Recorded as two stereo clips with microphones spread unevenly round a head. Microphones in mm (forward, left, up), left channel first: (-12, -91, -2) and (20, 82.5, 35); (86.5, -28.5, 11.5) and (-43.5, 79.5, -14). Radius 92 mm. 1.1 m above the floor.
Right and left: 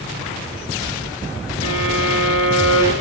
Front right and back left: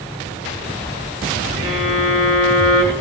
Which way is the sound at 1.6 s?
155° right.